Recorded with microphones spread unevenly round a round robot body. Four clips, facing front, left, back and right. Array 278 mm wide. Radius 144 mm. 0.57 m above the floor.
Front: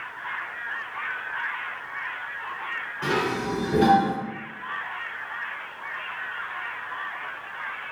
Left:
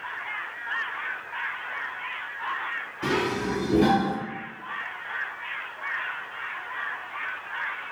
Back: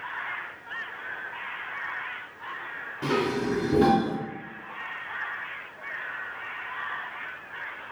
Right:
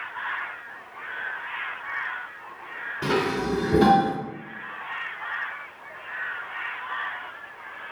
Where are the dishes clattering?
90° right, 1.3 m.